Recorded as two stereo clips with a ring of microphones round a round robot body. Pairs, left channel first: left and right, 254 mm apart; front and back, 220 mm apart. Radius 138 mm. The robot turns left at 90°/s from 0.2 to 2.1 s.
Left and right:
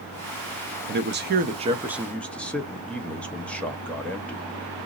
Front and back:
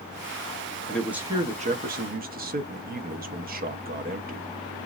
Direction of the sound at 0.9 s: 75° right.